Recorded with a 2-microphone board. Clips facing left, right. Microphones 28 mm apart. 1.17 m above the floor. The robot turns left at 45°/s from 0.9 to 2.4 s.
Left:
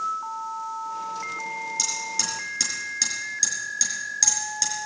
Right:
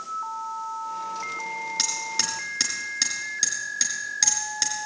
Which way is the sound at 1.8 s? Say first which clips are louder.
Right 1 dB; 50° right (ahead or behind).